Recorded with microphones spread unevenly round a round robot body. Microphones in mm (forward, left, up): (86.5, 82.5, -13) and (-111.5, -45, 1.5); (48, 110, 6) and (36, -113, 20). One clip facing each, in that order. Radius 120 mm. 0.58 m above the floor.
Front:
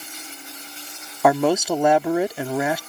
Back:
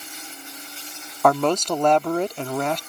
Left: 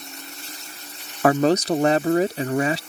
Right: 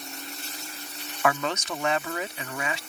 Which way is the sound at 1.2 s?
105° left.